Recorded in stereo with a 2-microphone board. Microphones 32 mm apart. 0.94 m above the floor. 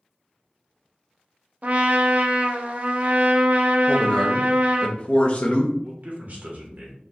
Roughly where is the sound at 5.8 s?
Right.